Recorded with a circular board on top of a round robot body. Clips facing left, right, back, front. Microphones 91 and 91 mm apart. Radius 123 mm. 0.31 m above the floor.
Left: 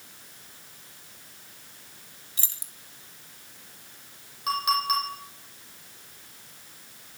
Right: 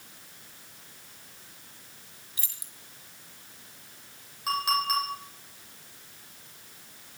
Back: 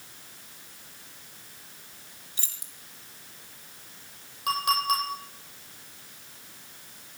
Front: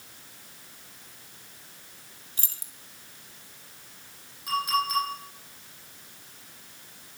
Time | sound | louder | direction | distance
2.4 | keys jangling | left 3 dB, front 1 dB | 35° left | 2.5 m
4.5 | a clink | left 2 dB, back 1 dB | straight behind | 10 m